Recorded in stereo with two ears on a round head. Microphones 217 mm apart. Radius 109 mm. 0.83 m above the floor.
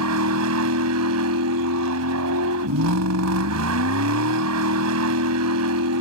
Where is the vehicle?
70° right (ahead or behind).